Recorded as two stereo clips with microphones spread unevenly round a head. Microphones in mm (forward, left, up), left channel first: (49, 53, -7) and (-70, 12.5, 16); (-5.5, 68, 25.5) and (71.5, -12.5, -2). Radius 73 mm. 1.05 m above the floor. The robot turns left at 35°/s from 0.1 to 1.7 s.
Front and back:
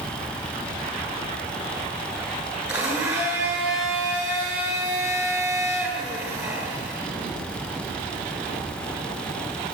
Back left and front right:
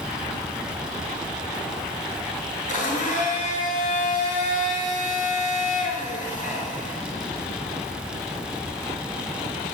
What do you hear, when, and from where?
2.7 s a blender: 115° left, 7.5 m